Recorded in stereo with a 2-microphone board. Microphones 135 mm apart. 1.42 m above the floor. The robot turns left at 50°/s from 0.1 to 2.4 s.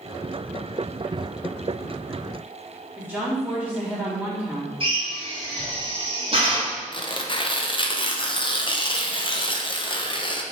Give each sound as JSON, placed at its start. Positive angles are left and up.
{"t": 3.0, "sound": "a woman speaking", "side_deg": -15, "distance_m": 2.5}
{"t": 4.8, "sound": "a drill", "side_deg": -45, "distance_m": 2.5}
{"t": 6.9, "sound": "tearing paper", "side_deg": 40, "distance_m": 0.7}